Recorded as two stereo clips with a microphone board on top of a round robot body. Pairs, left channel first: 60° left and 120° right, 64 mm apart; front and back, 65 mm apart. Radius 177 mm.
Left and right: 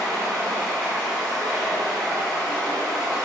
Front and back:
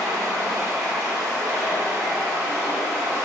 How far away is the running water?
About 1.5 m.